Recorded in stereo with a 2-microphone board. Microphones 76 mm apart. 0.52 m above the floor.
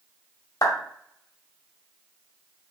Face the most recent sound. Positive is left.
turn(degrees=55)  # may be behind; listen again after turning